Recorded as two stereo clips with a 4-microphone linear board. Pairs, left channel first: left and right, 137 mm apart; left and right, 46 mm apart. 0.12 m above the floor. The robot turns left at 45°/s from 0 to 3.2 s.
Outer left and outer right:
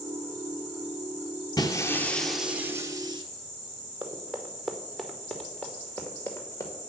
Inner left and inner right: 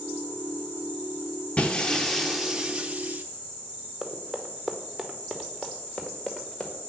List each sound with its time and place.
1.6 s breaking glass: 35° left, 1.1 m; by 3.2 s 40° right, 1.1 m
4.0 s running footsteps: 15° right (ahead or behind), 2 m; by 6.9 s 25° left (ahead or behind), 2.5 m